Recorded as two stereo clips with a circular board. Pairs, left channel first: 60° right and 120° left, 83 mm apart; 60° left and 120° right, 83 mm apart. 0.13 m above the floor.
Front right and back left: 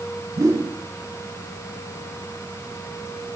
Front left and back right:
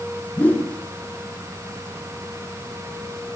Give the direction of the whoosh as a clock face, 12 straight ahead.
8 o'clock.